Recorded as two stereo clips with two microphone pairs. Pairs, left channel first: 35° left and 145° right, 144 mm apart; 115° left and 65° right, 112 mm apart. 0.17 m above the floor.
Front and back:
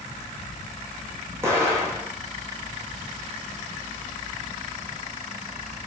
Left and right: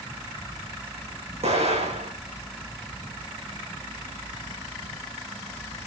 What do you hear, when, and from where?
1.4 s an explosion: 75° right, 7 m